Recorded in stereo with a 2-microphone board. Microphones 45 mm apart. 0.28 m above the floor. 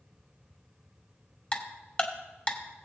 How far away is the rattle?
No rattle in this recording.